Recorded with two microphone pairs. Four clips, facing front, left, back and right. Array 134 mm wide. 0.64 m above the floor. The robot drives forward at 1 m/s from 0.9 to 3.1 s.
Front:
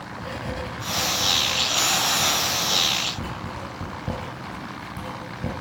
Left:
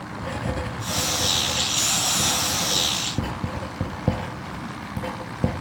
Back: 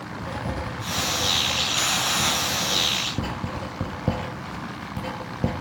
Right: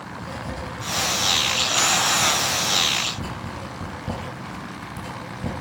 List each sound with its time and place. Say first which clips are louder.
0.2 s writing: left 5 dB, back 1 dB; 70° left, 3.5 m; by 5.5 s 110° left, 3.5 m